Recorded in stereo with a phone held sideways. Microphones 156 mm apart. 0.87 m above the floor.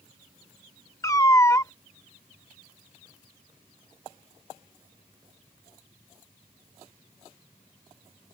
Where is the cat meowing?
20° left (ahead or behind).